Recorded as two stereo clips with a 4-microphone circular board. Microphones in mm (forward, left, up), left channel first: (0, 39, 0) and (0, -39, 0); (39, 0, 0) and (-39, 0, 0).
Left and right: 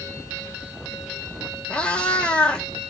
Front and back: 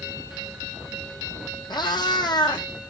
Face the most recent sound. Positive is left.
turn(degrees=15)